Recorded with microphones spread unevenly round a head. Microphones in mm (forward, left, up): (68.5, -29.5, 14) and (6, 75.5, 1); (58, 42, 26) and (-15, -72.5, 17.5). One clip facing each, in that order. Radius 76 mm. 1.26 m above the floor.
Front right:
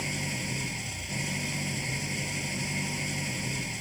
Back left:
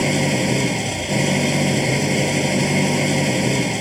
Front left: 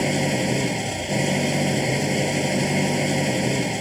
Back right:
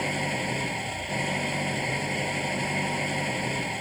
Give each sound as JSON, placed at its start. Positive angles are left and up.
{"t": 0.0, "sound": "an engine running", "azimuth_deg": 110}